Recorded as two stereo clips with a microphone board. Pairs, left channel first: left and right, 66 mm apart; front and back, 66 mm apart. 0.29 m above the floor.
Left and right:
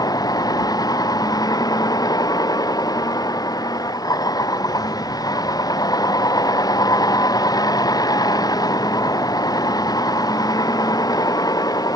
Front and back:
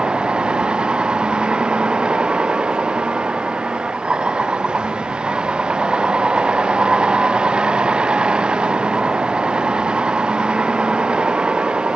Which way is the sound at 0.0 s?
105° left.